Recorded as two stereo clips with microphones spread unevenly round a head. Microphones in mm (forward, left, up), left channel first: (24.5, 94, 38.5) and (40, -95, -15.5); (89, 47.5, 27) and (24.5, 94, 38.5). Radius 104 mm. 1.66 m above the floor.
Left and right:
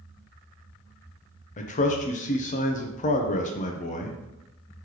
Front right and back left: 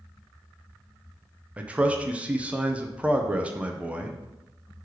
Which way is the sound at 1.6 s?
80° left.